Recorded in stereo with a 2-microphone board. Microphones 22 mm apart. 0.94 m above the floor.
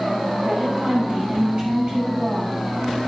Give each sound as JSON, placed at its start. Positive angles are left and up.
{"t": 0.4, "sound": "a woman speaking", "side_deg": -50, "distance_m": 5.0}